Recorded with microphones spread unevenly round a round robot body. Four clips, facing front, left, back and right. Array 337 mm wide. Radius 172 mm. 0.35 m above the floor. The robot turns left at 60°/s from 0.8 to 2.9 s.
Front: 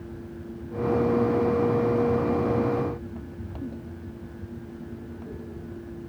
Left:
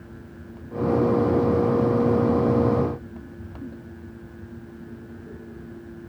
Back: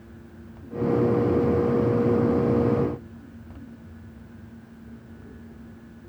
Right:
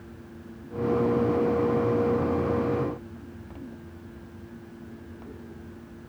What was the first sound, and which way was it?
Only background noise.